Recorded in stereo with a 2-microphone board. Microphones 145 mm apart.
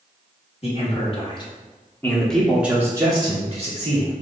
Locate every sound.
0.6 s a man speaking: 45° left (ahead or behind), 1.2 m; by 4.1 s 50° right (ahead or behind), 1.1 m